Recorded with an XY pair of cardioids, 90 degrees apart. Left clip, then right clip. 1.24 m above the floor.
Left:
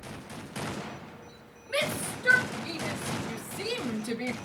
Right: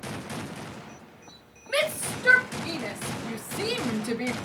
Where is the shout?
50° right, 3.5 m; by 4.3 s 15° right, 0.8 m.